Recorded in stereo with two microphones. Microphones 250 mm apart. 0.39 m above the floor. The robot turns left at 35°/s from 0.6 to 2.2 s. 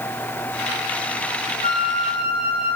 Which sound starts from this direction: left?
A flute, at 1.6 s.